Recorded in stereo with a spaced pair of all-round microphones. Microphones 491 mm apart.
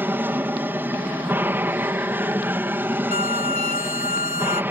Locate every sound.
0.0 s an aircraft: 5° right (ahead or behind)
3.1 s a violin: 15° right (ahead or behind)